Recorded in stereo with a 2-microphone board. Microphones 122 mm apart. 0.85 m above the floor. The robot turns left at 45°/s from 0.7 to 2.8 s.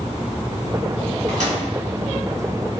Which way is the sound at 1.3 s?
75° right (ahead or behind).